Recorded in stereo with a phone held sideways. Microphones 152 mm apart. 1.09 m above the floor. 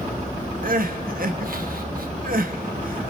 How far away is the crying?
About 1.3 m.